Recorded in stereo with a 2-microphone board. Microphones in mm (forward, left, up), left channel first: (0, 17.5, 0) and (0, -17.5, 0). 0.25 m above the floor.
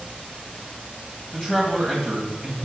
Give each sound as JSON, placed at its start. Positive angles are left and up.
{"t": 1.3, "sound": "a man speaking", "side_deg": 5, "distance_m": 1.6}